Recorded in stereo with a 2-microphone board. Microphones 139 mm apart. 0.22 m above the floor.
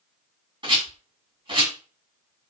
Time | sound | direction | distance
0.6 | a rattle | 40° right (ahead or behind) | 2 m